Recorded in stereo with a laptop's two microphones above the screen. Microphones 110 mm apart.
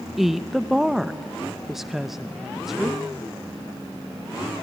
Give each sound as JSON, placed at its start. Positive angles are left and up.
{"t": 0.2, "sound": "a woman speaking", "side_deg": -5, "distance_m": 0.6}